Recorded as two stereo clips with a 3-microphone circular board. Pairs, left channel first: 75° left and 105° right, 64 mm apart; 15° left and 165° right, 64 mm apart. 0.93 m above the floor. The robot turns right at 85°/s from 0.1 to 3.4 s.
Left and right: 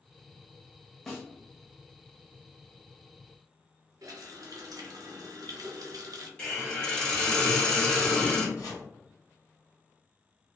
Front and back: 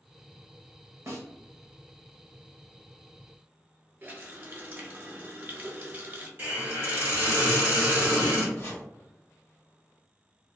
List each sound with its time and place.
1.1 s a snare drum: 160° left, 0.7 m; by 1.3 s 175° left, 0.7 m
4.0 s a running tap: 110° right, 0.5 m
6.4 s a hiss: 145° left, 1.4 m
8.6 s chopping: 60° left, 1.0 m